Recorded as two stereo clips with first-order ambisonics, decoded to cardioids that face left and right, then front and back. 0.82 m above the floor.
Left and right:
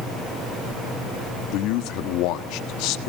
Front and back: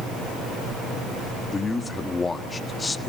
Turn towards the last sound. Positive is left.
turn(degrees=75)